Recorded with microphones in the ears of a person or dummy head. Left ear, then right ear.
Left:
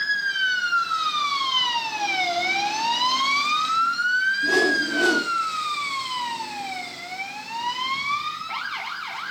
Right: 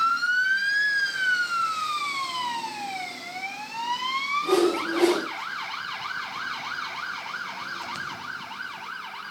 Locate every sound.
4.4 s a whoosh: 20° right (ahead or behind), 1.6 m